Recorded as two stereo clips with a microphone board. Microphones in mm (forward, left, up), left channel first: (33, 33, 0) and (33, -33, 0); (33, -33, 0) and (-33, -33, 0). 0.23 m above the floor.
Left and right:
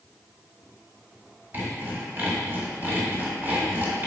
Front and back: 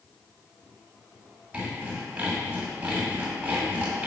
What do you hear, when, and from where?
1.5 s sawing: 120° right, 1.9 m